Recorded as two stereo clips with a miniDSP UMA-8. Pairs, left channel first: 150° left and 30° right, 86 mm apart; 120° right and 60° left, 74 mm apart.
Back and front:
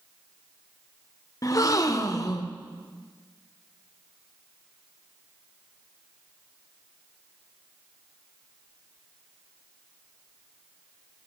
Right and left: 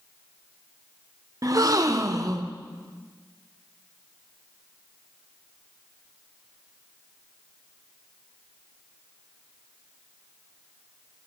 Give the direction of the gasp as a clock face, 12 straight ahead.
9 o'clock.